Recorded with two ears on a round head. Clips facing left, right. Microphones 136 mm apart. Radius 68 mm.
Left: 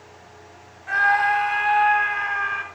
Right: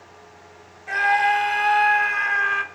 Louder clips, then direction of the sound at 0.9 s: Right 1 dB; 20° right (ahead or behind).